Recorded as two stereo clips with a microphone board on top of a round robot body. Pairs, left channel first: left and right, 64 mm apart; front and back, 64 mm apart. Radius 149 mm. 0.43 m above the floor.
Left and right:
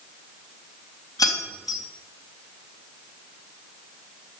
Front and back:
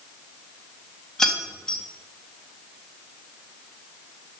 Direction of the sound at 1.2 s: 80° left.